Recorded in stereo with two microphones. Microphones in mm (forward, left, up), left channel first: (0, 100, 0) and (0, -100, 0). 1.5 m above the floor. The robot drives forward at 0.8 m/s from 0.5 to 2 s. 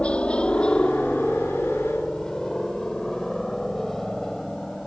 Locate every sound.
0.0 s a helicopter: 5° left (ahead or behind); by 4.9 s centre (ahead or behind)